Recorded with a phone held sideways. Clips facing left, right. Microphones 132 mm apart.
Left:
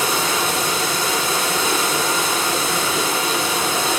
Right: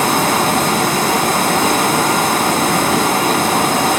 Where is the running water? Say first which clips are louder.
Right 7 dB; 55° right (ahead or behind), 1.7 m.